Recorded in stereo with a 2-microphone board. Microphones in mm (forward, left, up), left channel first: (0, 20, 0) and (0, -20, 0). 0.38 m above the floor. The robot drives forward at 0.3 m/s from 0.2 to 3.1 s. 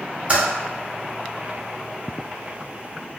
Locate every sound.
0.3 s typing on a keyboard: 35° right (ahead or behind), 1.7 m